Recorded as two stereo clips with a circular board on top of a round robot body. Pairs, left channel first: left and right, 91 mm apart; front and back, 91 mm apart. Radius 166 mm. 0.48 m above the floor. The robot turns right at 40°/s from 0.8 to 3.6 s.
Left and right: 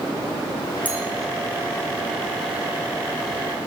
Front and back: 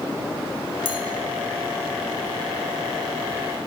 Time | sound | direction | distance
0.8 | a clink | 20° left | 3.5 m